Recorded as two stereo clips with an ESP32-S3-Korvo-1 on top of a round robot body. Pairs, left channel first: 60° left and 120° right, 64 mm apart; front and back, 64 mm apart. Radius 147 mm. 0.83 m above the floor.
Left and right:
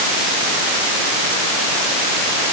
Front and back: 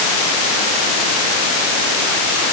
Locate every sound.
Only background noise.